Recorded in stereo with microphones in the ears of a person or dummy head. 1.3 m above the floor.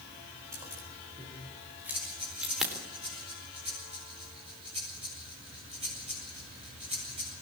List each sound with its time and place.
0.5 s keys jangling: 20° right (ahead or behind), 4.5 m; by 2.7 s 5° right (ahead or behind), 3.5 m
1.9 s breathing: 35° right (ahead or behind), 7.5 m